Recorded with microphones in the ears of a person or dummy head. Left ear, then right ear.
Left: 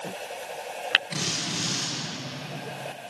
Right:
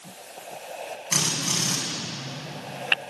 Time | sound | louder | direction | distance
1.1 | a drill | right 4 dB | 45° right (ahead or behind) | 8.5 m